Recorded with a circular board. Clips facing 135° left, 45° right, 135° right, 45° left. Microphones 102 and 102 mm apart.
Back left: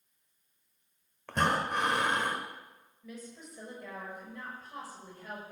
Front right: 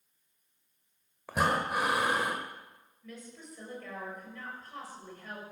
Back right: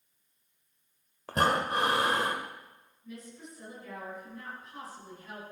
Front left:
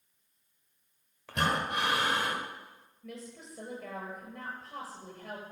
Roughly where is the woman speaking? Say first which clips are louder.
Back left 1 dB, front left 1 dB; ahead left.